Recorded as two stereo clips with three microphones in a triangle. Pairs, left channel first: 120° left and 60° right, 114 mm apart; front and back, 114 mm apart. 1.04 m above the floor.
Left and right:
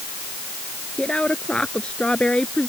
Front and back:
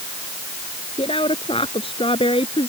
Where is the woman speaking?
40° left; by 2.7 s 35° left.